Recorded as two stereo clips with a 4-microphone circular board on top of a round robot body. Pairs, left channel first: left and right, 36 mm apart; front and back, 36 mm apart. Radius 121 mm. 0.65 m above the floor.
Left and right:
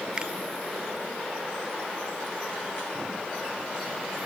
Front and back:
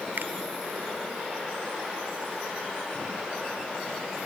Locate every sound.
0.2 s a finger snap: 155° right